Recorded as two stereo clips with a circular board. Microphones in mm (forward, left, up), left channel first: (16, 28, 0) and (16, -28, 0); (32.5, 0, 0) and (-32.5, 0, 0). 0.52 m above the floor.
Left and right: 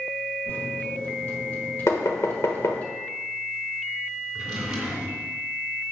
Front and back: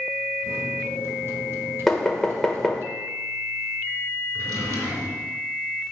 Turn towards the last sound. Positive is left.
turn(degrees=-170)